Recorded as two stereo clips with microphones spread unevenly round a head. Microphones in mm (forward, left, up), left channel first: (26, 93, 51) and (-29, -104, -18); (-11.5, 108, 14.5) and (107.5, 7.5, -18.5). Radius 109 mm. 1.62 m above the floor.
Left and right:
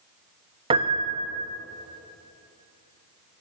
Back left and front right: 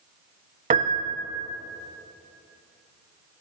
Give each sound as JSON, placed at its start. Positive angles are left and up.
{"t": 0.7, "sound": "a piano", "azimuth_deg": -25, "distance_m": 1.0}